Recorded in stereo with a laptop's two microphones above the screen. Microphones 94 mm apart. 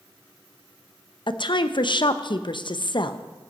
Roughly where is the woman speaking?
Left.